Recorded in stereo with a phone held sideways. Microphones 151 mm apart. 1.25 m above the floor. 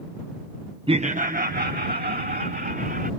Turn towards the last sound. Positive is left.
turn(degrees=-85)